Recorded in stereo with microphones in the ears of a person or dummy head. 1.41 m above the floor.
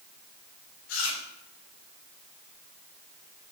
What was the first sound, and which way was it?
Chewing, 80° left.